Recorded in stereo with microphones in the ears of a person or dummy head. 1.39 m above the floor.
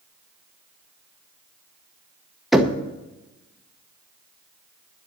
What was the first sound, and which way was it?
Knocking, centre (ahead or behind).